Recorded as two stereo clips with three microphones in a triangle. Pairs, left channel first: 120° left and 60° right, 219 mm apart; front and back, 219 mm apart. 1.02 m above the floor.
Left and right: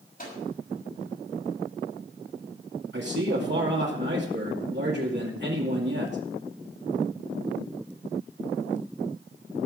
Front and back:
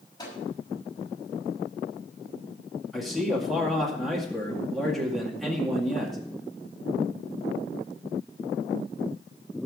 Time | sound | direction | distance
0.2 | a microwave | 70° left | 6 m
2.9 | a man speaking | 90° right | 2 m